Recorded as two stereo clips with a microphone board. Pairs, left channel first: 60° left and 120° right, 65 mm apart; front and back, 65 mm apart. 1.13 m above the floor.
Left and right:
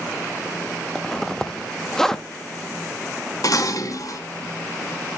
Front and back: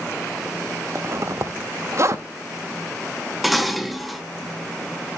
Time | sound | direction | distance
0.9 | a zipper | 145° left | 0.8 m
3.4 | dishes clattering | 90° left | 1.0 m